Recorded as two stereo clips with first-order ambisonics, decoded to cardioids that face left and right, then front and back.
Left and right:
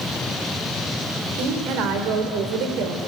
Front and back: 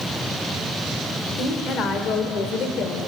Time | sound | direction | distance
1.4 | a woman speaking | 55° right | 3 m